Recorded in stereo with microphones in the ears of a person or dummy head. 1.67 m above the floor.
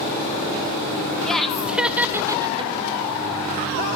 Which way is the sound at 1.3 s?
Centre (ahead or behind).